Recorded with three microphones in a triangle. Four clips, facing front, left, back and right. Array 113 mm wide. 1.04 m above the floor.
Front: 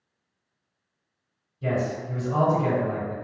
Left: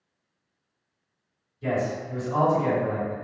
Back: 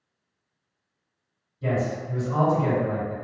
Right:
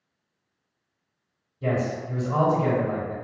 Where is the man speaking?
80° right, 2.0 m.